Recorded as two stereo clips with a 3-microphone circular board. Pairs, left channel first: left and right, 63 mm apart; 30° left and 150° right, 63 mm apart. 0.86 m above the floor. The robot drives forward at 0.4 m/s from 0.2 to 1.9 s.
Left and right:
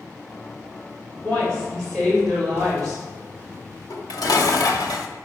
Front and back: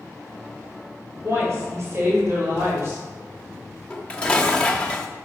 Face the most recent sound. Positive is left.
turn(degrees=100)